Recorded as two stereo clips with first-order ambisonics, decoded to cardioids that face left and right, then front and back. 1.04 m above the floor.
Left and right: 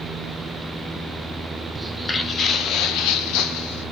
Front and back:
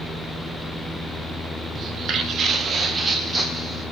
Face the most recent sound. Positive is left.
turn(degrees=105)